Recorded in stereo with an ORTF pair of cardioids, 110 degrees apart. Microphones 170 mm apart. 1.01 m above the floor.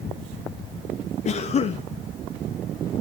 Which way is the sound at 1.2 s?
45° left.